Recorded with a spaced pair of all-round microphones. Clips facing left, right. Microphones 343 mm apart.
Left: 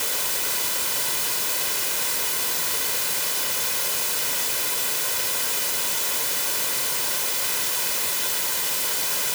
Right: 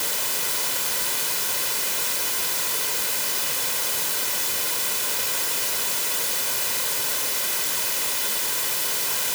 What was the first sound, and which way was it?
Only background noise.